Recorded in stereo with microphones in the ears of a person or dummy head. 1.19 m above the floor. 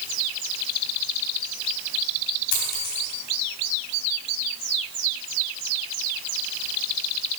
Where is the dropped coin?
80° left, 4 m.